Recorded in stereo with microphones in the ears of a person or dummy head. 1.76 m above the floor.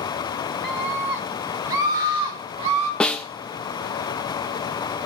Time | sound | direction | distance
0.6 | a scream | centre (ahead or behind) | 3.5 m
3.0 | a snare drum | 5° left (ahead or behind) | 0.9 m